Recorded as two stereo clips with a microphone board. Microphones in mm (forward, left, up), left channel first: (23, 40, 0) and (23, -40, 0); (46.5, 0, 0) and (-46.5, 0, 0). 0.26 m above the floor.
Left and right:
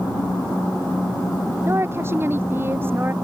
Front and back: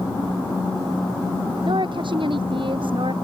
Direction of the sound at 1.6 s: 150° right.